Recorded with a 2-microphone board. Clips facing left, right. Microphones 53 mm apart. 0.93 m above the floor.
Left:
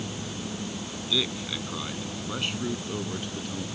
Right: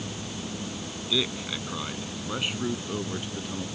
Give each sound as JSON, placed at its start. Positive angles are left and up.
{"t": 1.1, "sound": "a man speaking", "side_deg": -10}